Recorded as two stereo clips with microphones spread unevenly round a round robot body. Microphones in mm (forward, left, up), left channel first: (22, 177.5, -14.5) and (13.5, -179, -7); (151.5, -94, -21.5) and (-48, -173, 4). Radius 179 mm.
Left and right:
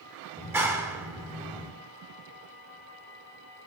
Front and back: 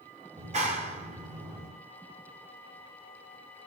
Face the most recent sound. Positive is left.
turn(degrees=-170)